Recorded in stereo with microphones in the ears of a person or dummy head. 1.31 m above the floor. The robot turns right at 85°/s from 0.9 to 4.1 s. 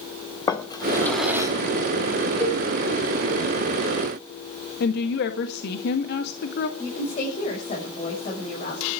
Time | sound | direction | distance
0.5 | a drawer | 160° left | 2 m
2.4 | a cowbell | 15° left (ahead or behind) | 4.5 m
4.8 | a woman speaking | 65° left (ahead or behind) | 1.7 m
6.8 | a woman speaking | 40° left (ahead or behind) | 6.5 m